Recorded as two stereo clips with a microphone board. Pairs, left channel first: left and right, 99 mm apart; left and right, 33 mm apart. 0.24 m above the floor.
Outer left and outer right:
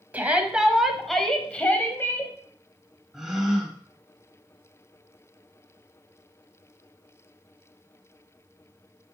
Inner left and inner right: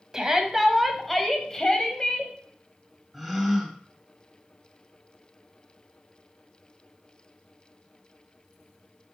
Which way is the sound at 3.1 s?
5° right (ahead or behind).